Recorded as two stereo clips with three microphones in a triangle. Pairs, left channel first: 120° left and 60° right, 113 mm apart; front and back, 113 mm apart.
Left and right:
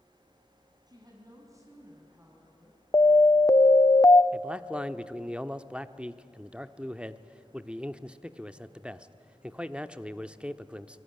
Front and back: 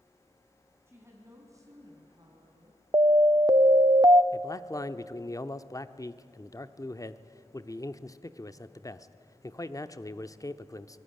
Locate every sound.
0.9 s a woman speaking: 110° right, 4.5 m; by 2.8 s 140° right, 3.5 m
2.9 s an alarm: 160° left, 0.7 m
4.3 s a man speaking: 15° left, 0.8 m